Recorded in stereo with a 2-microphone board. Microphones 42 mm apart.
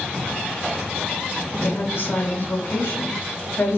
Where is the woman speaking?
70° left (ahead or behind), 5 m.